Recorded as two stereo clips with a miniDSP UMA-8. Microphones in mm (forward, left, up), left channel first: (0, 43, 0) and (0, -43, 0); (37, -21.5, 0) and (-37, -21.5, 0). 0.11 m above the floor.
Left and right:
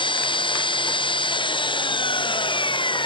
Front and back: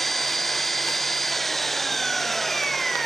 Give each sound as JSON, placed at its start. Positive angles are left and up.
{"t": 0.0, "sound": "an engine running", "azimuth_deg": 90}